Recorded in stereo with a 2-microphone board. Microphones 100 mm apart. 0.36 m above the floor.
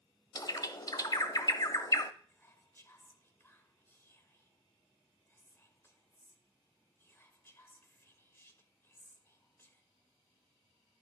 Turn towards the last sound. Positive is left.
turn(degrees=25)  # may be behind; listen again after turning